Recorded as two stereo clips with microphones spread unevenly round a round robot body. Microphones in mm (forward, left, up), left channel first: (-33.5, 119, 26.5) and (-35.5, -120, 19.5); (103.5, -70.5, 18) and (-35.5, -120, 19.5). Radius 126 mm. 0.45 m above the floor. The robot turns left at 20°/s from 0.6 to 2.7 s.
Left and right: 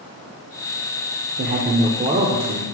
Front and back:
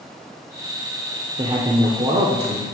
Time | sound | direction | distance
1.4 | a man speaking | 125° right | 1.2 m